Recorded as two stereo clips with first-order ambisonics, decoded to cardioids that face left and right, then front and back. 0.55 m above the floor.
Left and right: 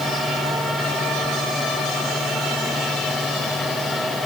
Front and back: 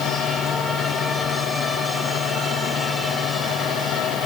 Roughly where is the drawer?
I don't hear a drawer.